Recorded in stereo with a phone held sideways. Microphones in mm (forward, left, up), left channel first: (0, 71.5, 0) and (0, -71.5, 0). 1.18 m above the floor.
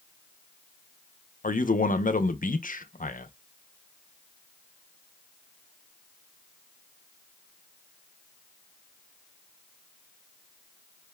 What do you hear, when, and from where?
1.4 s a man speaking: 70° left (ahead or behind), 0.7 m